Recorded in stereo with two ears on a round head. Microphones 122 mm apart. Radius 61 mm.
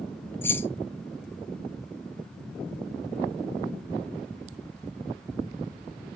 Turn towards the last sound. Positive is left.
turn(degrees=15)  # may be behind; listen again after turning